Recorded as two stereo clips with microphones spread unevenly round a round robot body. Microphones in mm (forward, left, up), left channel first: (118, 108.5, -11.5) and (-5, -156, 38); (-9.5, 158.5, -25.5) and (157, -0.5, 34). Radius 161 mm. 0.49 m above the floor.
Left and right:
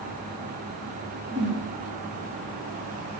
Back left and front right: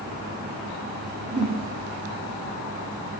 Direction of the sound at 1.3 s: 65° right.